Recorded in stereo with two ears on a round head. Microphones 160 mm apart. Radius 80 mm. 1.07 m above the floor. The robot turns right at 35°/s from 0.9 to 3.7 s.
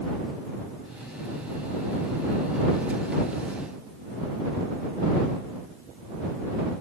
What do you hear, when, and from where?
Only background noise.